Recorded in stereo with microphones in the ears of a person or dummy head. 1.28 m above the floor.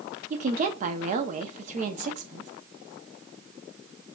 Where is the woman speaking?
40° right (ahead or behind), 0.6 m.